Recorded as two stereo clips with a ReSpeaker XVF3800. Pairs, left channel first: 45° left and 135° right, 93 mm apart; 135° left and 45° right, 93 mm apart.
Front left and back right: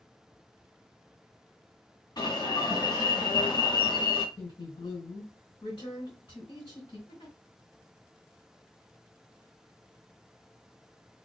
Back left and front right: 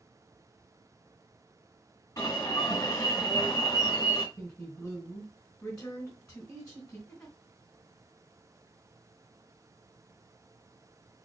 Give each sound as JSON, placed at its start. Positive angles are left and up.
{"t": 2.2, "sound": "an alarm", "azimuth_deg": 80, "distance_m": 2.5}
{"t": 4.3, "sound": "a woman speaking", "azimuth_deg": 65, "distance_m": 2.5}
{"t": 7.1, "sound": "a giggle", "azimuth_deg": 60, "distance_m": 2.5}